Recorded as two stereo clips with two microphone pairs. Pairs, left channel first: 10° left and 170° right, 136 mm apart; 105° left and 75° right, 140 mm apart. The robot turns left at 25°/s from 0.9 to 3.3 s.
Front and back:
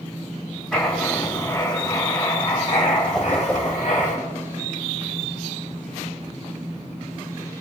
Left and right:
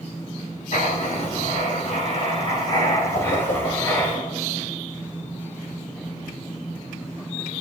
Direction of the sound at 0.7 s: 95° left.